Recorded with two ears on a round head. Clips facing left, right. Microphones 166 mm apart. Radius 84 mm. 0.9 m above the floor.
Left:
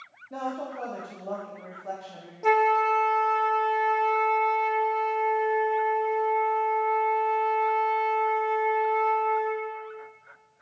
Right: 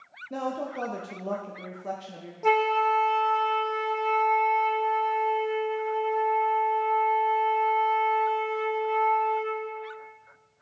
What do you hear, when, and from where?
0.3 s a woman speaking: 35° right (ahead or behind), 0.7 m
2.4 s a flute: centre (ahead or behind), 0.6 m